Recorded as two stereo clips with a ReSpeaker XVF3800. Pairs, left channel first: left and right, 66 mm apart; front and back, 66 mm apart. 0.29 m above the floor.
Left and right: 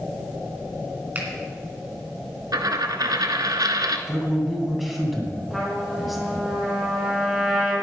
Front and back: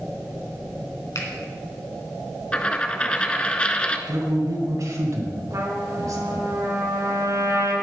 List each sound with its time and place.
1.1 s a finger snap: 30° right, 2.5 m
2.5 s a dropped coin: 75° right, 0.7 m
4.1 s a man speaking: straight behind, 2.5 m
5.5 s a trumpet: 175° right, 4 m